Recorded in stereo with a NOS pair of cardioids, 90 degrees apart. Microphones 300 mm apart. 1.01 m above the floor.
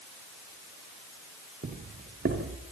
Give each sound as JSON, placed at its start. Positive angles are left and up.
{"t": 1.6, "sound": "footsteps", "azimuth_deg": -40, "distance_m": 7.0}